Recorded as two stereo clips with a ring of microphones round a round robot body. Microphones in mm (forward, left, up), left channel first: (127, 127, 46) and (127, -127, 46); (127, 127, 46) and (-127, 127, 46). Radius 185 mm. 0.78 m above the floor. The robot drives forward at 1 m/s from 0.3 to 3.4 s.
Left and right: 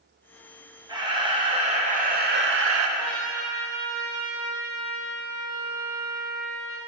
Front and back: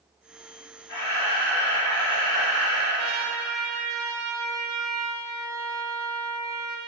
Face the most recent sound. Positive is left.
turn(degrees=180)